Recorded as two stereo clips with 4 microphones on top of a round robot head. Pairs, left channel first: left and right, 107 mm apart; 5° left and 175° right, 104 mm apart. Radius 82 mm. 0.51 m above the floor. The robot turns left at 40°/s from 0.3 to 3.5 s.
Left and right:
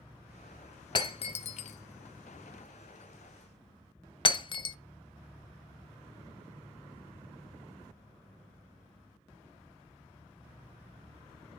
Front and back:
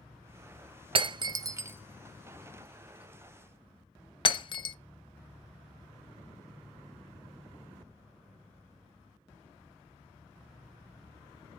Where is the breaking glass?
150° left, 0.8 m; by 4.8 s 50° left, 0.8 m.